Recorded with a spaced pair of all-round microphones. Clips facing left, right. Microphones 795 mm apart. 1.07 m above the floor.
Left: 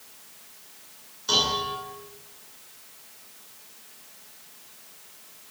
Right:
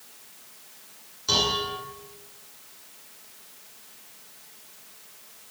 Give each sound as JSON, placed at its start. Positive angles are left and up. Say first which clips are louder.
{"t": 1.3, "sound": "dishes clattering", "louder": "right 1 dB", "side_deg": -55, "distance_m": 9.5}